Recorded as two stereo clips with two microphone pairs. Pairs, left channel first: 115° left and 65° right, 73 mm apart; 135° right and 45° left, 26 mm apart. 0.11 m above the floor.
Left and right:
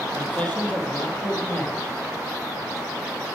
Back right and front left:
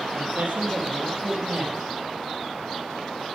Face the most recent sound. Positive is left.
turn(degrees=50)